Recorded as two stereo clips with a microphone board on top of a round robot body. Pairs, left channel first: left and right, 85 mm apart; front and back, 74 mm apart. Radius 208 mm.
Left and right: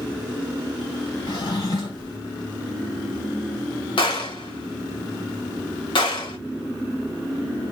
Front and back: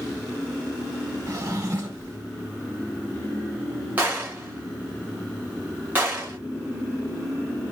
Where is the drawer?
130° left, 2.0 m.